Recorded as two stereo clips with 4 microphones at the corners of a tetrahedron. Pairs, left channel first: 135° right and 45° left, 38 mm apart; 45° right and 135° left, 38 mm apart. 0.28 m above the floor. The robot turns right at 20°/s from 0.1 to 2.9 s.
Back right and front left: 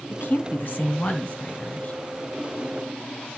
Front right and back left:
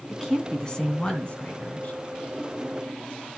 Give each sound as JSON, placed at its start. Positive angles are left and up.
{"t": 0.1, "sound": "a woman speaking", "azimuth_deg": -120, "distance_m": 2.0}